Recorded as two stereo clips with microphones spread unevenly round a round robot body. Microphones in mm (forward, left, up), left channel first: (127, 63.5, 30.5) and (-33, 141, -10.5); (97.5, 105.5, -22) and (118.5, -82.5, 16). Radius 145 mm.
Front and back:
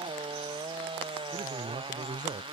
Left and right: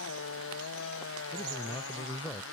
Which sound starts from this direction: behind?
A man speaking, at 1.3 s.